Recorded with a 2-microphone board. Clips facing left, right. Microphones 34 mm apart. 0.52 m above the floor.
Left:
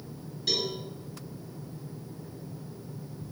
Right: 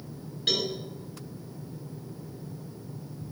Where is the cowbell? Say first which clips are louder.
Right 2 dB; 60° right (ahead or behind), 2 m.